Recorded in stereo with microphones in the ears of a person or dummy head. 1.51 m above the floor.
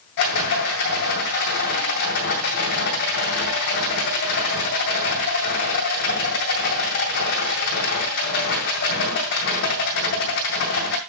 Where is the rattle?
60° left (ahead or behind), 2.5 m.